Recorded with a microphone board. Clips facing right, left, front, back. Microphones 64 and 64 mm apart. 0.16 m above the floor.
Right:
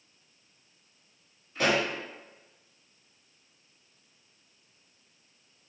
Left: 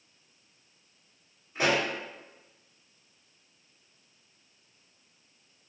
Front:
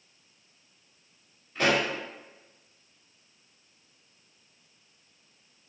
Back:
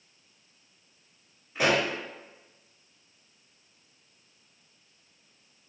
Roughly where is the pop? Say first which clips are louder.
Even, even; behind left.